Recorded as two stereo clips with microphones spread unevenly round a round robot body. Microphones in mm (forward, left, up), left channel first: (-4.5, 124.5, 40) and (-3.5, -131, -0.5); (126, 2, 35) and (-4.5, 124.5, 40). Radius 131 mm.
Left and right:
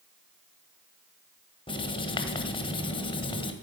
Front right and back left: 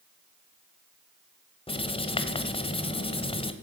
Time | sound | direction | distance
1.7 | writing | 20° left | 1.7 m